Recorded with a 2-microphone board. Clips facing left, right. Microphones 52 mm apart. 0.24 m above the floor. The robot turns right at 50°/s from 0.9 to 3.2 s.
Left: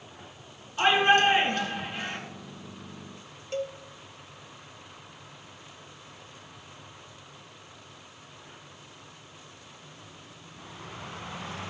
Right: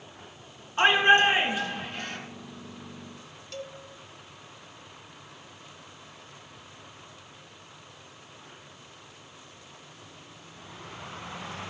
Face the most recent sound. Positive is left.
turn(degrees=30)  # may be behind; listen again after turning